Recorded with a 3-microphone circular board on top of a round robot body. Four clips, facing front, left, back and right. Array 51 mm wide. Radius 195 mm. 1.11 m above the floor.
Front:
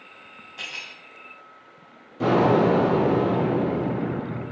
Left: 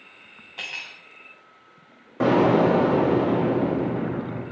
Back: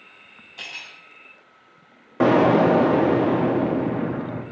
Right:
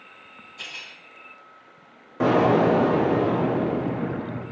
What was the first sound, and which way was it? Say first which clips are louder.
Cutlery clinking: left 4 dB, front 1 dB; 85° left.